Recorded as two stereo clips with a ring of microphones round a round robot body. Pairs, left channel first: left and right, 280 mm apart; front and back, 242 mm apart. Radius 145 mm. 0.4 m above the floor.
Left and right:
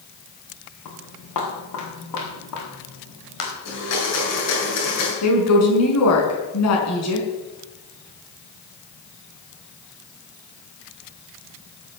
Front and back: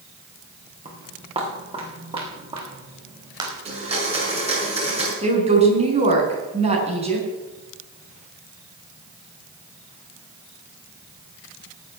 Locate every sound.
0.8 s footsteps: 115° left, 6.5 m; by 3.5 s 110° left, 7.5 m
3.6 s a blender: 115° left, 6.5 m
5.2 s a woman speaking: 115° left, 5 m